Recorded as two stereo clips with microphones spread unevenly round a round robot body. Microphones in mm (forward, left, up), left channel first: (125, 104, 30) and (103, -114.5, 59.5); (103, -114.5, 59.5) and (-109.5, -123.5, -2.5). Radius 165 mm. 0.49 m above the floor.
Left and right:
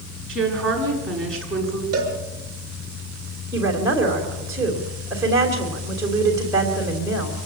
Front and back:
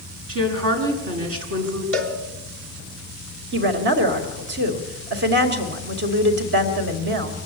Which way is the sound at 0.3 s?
175° left.